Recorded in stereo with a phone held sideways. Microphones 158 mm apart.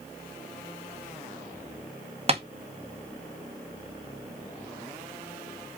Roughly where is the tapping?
Right.